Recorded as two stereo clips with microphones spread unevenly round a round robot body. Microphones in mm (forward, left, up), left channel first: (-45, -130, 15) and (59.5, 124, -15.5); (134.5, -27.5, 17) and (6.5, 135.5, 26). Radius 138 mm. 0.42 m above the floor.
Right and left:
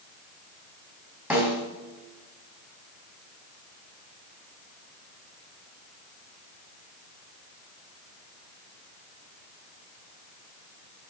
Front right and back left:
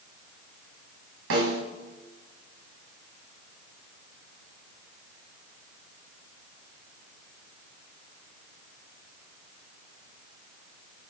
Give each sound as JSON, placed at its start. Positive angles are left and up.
{"t": 1.3, "sound": "a snare drum", "azimuth_deg": 150, "distance_m": 4.0}